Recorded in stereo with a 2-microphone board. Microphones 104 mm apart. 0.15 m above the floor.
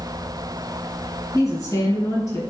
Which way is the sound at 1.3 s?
35° left (ahead or behind).